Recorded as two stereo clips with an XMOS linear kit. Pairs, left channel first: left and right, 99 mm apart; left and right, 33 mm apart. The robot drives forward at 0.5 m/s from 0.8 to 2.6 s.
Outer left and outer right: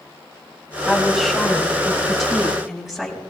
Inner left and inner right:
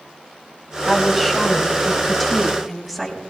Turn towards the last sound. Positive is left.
turn(degrees=0)  # may be behind; listen again after turning